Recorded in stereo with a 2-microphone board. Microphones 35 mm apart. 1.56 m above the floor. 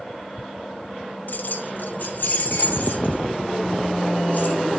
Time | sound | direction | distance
1.3 | keys jangling | 55° left (ahead or behind) | 0.9 m